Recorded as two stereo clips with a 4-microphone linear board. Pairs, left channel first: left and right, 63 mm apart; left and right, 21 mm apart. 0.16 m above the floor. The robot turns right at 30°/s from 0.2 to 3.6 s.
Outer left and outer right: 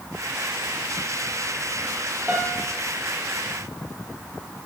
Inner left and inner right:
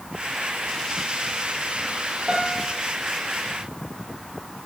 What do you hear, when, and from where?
2.3 s a piano: 25° right (ahead or behind), 1.9 m; by 2.8 s 10° right (ahead or behind), 1.9 m